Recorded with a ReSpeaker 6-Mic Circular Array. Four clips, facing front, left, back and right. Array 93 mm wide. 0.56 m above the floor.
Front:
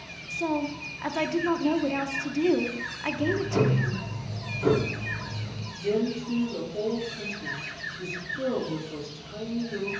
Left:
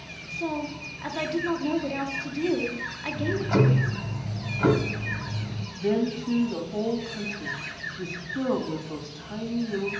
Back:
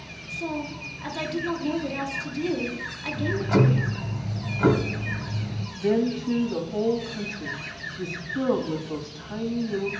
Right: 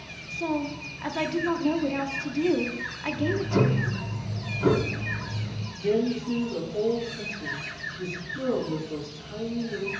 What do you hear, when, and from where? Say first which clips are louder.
0.3 s a woman speaking: right 2 dB, front 3 dB; 10° right, 1.1 m
3.1 s ticking: left 1 dB, back 3 dB; 140° left, 1.6 m
5.8 s a woman speaking: right 1 dB, back 3 dB; 150° left, 3 m